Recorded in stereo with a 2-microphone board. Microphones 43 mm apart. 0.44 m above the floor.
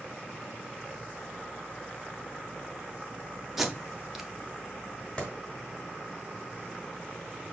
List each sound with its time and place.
3.6 s tape being pulled: 5° right (ahead or behind), 1.1 m
5.2 s a clap: 20° left (ahead or behind), 2.5 m